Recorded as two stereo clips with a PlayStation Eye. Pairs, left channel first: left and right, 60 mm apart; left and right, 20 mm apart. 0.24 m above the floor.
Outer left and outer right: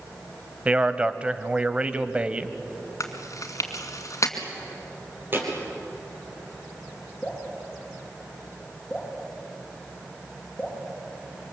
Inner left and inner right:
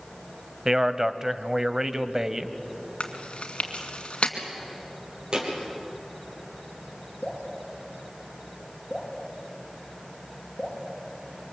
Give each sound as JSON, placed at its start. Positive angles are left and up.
{"t": 0.7, "sound": "a man speaking", "side_deg": -20, "distance_m": 1.0}
{"t": 3.0, "sound": "chewing", "side_deg": 60, "distance_m": 2.5}
{"t": 5.3, "sound": "a thud", "side_deg": -40, "distance_m": 3.5}
{"t": 7.2, "sound": "dripping", "side_deg": 10, "distance_m": 8.0}